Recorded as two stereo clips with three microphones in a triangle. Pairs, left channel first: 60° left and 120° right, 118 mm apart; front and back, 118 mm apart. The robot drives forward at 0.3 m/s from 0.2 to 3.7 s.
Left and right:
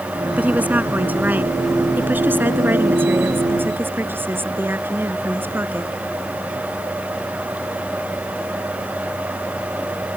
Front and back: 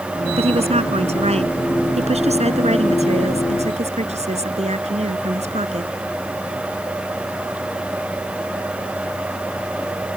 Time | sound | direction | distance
0.4 | a woman speaking | 165° left | ?